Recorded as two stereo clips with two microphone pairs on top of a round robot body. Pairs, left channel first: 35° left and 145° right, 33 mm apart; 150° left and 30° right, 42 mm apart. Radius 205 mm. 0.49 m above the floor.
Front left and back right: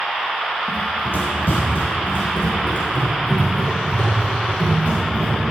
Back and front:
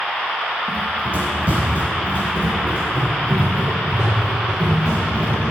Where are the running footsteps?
25° left, 1.3 m; by 5.4 s 40° left, 4.5 m.